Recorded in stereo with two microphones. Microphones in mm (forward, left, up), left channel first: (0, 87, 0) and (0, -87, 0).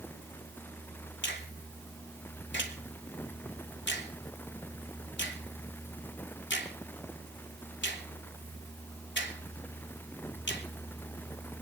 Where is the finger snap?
80° left, 3 m.